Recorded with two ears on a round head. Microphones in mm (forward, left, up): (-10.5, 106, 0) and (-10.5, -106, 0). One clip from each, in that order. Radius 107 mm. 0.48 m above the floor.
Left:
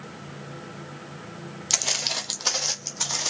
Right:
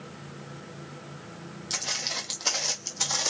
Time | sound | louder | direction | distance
1.7 | footsteps | left 5 dB | 35° left (ahead or behind) | 0.7 m